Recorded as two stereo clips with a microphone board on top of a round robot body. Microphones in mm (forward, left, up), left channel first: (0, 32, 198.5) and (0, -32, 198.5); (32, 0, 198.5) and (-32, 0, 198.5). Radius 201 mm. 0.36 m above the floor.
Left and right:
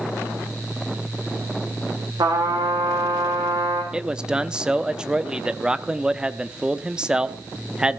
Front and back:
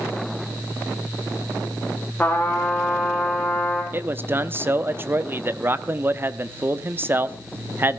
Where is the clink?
I don't hear a clink.